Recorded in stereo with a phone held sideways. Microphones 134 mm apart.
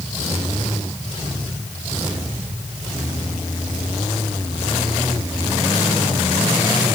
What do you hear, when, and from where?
Only background noise.